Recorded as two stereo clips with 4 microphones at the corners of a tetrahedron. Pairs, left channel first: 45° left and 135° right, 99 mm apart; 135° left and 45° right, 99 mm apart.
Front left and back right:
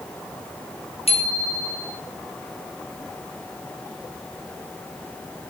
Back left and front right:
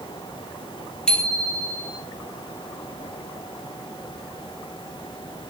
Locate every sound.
1.1 s a bicycle bell: 55° left, 4 m